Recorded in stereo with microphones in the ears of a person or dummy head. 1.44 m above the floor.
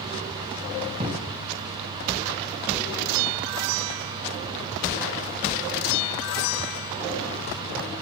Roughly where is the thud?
Right.